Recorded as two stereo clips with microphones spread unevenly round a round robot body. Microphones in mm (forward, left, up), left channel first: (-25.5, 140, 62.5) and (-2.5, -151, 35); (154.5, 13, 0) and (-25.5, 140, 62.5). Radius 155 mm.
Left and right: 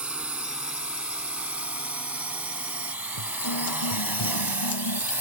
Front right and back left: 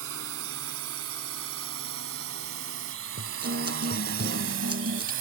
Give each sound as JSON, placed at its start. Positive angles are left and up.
{"t": 0.0, "sound": "a drone", "azimuth_deg": -170}
{"t": 3.2, "sound": "a guitar", "azimuth_deg": 100}